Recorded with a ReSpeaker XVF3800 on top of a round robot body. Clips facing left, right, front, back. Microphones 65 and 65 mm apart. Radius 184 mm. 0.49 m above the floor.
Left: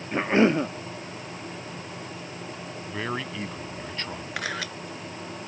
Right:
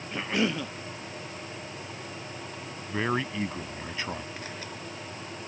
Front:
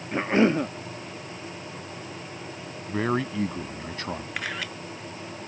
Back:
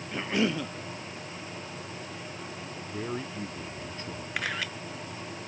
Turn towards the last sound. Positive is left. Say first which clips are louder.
# left 8 dB, back 4 dB
turn(degrees=90)